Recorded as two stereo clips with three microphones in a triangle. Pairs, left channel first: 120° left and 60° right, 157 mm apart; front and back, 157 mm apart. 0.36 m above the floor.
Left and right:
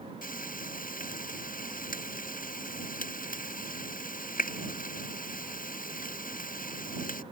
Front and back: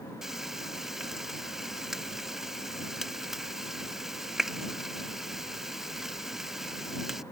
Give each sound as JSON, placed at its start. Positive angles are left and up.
{"t": 0.2, "sound": "frying", "azimuth_deg": 95}